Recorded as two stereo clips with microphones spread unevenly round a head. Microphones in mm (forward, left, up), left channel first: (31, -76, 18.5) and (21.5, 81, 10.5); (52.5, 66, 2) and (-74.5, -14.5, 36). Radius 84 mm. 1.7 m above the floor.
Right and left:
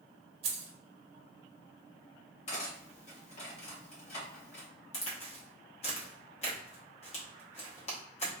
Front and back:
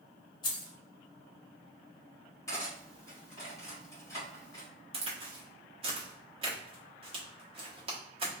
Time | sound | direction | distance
0.4 | keys jangling | 90° left | 0.8 m
2.5 | cutlery clinking | 45° right | 1.6 m
4.9 | a crack | 125° right | 1.0 m